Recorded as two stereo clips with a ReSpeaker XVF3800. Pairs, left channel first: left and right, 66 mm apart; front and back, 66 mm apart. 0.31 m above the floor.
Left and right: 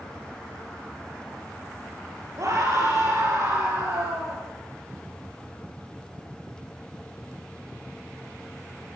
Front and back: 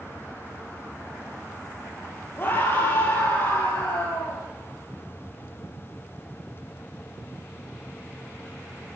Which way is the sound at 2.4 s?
55° right.